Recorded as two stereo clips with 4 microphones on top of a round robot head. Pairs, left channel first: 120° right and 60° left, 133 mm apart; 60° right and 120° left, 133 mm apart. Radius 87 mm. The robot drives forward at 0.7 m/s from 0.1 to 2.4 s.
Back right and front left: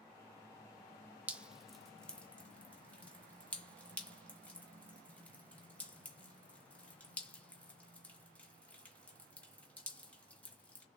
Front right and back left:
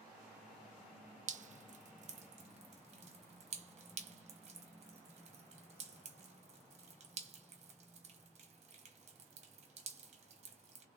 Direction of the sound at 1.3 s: 135° left.